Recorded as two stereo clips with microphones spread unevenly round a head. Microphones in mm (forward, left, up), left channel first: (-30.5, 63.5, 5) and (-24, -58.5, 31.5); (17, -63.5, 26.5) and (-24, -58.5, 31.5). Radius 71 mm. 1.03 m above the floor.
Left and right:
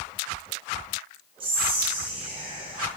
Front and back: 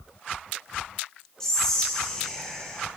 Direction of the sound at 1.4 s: 60° right.